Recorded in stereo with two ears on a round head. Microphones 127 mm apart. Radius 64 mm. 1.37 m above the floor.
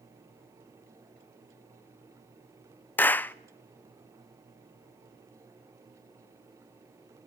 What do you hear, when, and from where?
3.0 s a clap: 15° left (ahead or behind), 0.6 m